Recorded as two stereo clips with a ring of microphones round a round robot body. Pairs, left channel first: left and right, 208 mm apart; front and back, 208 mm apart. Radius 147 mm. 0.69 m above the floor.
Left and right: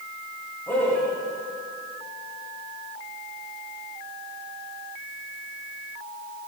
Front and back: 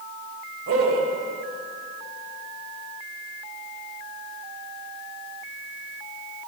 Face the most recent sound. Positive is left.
turn(degrees=170)